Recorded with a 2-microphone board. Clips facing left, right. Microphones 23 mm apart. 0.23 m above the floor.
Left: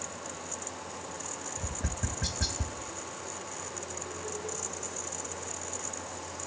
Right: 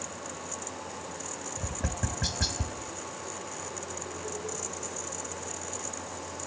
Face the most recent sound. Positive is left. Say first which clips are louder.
# right 4 dB
turn(degrees=-25)  # may be behind; listen again after turning